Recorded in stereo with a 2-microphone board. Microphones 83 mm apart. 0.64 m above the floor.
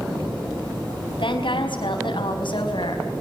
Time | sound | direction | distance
1.2 | a woman speaking | 80° left | 4.5 m